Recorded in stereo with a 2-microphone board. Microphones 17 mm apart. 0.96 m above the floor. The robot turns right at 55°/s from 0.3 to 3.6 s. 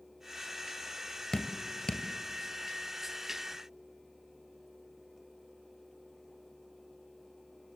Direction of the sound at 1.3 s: 60° left (ahead or behind).